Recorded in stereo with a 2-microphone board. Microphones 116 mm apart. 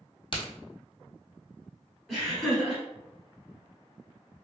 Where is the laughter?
Centre (ahead or behind), 1.1 m.